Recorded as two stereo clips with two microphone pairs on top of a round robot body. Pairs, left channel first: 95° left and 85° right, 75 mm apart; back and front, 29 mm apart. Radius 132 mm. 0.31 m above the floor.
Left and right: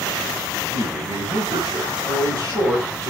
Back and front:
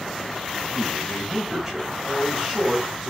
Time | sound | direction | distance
0.7 | a man speaking | 65° right | 6.5 m